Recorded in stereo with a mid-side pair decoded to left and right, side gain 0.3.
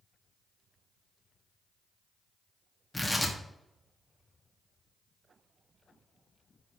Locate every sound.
2.9 s tearing paper: 20° left, 1.1 m